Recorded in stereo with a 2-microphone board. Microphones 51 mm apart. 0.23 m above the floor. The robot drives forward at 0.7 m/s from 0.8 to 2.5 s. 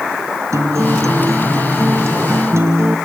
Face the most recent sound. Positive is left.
turn(degrees=-65)  # may be behind; listen again after turning